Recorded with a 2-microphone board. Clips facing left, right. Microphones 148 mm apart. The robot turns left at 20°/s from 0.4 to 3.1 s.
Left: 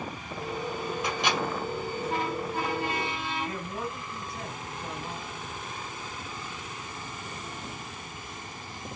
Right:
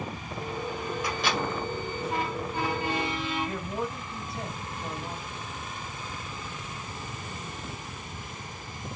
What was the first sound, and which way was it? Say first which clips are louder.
A microwave: left 1 dB; 20° left (ahead or behind).